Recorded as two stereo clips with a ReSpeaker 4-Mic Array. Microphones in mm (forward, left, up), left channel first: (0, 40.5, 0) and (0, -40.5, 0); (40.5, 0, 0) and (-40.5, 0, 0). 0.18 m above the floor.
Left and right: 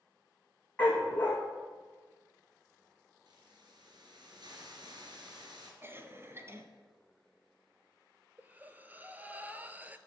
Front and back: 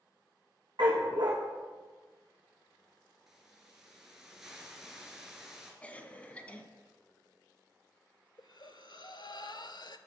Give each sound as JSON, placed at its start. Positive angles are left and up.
{"t": 0.8, "sound": "a dog barking", "azimuth_deg": 160, "distance_m": 3.0}
{"t": 3.3, "sound": "a hiss", "azimuth_deg": -95, "distance_m": 2.0}
{"t": 5.8, "sound": "a cough", "azimuth_deg": -60, "distance_m": 1.2}
{"t": 8.4, "sound": "breathing", "azimuth_deg": -20, "distance_m": 0.6}